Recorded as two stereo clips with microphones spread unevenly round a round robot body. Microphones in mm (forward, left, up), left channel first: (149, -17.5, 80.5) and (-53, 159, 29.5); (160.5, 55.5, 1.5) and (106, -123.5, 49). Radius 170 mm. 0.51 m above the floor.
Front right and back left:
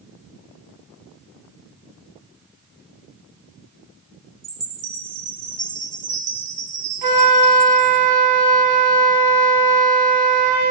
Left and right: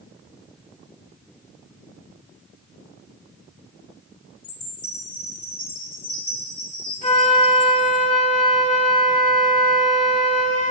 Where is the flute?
145° left, 3.5 m.